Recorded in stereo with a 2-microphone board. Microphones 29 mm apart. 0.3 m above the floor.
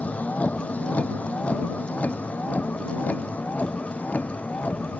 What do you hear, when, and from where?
0.0 s a vehicle: 60° left (ahead or behind); by 5.0 s 65° left (ahead or behind)